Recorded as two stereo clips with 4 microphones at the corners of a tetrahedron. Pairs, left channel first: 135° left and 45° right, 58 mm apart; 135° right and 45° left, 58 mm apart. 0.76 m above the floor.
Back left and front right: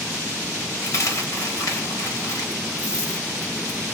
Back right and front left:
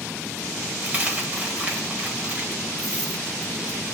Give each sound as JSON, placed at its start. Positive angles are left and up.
{"t": 0.8, "sound": "a dropped coin", "azimuth_deg": 110, "distance_m": 1.2}